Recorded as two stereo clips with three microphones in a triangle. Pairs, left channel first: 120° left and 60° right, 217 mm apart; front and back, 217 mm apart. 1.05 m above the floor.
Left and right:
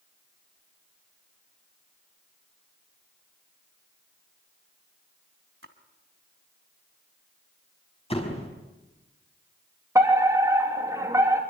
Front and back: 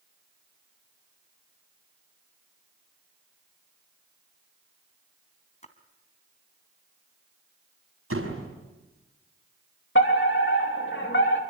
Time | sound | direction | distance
5.6 | a splash | 55° right | 2 m
8.1 | a door slam | 175° right | 5 m
9.9 | a fire alarm | 15° left | 3.5 m